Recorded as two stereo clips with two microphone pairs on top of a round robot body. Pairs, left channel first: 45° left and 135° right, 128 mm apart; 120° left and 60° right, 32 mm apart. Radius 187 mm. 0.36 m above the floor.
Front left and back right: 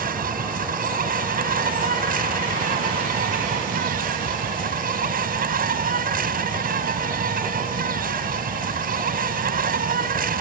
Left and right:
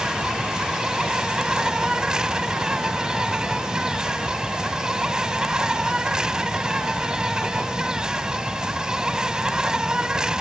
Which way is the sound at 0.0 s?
130° right.